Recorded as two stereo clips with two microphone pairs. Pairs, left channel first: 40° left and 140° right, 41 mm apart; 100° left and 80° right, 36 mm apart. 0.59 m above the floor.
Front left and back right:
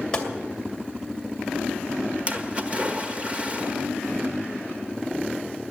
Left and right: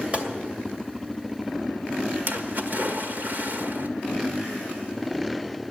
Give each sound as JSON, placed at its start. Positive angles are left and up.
{"t": 0.1, "sound": "a gunshot", "azimuth_deg": -30, "distance_m": 2.5}
{"t": 2.3, "sound": "a splash", "azimuth_deg": -85, "distance_m": 1.4}